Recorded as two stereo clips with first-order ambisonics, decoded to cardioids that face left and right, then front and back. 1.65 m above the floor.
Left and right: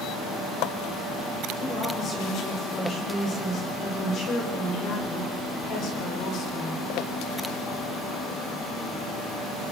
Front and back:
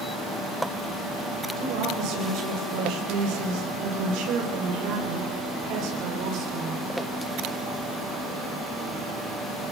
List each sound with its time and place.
1.6 s a woman speaking: 150° left, 8 m; by 6.8 s 135° left, 5.5 m